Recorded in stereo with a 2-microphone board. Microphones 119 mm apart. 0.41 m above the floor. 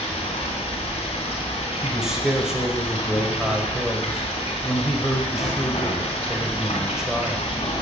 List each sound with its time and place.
0.0 s running water: 55° left (ahead or behind), 3 m
1.8 s a man speaking: 5° right (ahead or behind), 1.3 m